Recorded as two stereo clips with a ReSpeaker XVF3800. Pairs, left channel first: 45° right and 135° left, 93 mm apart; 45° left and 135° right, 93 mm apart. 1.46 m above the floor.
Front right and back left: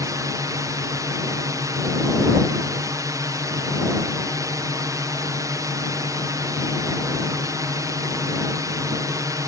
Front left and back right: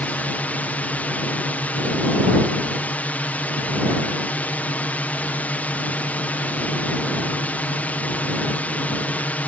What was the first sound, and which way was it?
A drone, 110° left.